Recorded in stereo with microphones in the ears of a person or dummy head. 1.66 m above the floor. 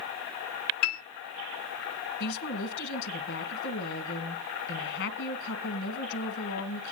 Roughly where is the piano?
Left.